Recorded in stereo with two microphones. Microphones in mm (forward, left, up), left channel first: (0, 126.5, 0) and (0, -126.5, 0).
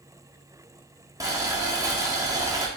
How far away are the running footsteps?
No running footsteps in this recording.